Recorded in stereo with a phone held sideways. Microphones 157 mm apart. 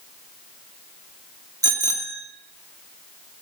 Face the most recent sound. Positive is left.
turn(degrees=-20)  # may be behind; listen again after turning